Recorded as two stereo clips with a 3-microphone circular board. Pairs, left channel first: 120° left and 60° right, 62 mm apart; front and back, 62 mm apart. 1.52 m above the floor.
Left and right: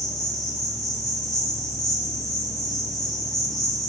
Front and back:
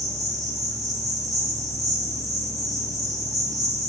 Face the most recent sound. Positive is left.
turn(degrees=-155)